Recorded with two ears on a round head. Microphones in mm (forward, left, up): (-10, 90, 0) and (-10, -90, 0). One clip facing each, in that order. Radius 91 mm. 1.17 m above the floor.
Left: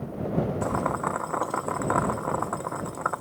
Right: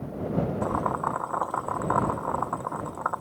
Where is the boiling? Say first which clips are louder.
Left 1 dB; 25° left (ahead or behind).